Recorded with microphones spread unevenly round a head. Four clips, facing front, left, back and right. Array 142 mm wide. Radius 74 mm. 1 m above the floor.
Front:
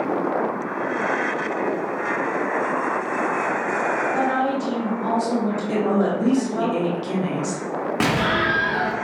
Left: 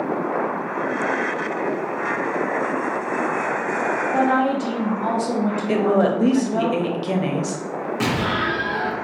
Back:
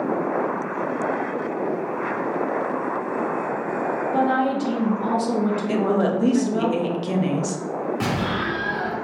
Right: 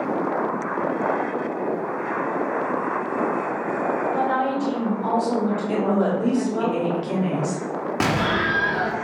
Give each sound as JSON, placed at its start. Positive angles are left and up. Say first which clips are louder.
{"t": 4.1, "sound": "a woman speaking", "louder": "left 3 dB, back 1 dB", "azimuth_deg": 130, "distance_m": 1.4}
{"t": 5.7, "sound": "a woman speaking", "louder": "left 5 dB, front 1 dB", "azimuth_deg": 100, "distance_m": 1.0}
{"t": 8.0, "sound": "an explosion", "louder": "right 1 dB, front 4 dB", "azimuth_deg": -20, "distance_m": 1.2}